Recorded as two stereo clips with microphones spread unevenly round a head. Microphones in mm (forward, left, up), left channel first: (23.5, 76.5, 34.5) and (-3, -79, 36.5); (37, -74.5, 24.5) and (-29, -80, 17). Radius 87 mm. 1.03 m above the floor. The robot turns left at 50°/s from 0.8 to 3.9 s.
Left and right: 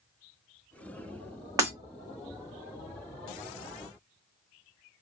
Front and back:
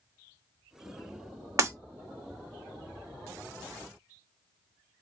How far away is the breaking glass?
About 0.9 m.